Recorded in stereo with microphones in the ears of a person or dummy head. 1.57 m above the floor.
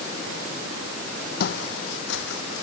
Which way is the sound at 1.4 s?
50° left (ahead or behind).